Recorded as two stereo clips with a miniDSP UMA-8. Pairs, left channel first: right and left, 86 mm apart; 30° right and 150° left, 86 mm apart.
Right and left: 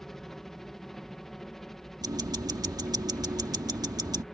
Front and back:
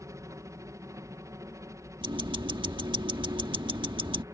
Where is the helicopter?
175° right.